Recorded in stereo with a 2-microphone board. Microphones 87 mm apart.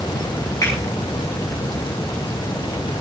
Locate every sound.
0.6 s a finger snap: 40° left (ahead or behind), 7.5 m